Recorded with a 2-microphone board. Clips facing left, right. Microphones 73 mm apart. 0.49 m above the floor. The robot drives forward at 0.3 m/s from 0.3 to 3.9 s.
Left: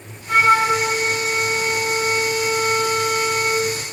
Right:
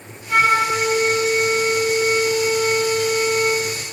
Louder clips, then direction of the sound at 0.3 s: Left 2 dB; 85° left.